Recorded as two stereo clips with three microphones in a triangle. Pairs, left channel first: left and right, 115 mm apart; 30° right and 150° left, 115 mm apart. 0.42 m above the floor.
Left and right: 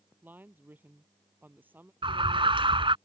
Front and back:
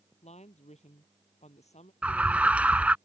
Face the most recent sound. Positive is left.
turn(degrees=-130)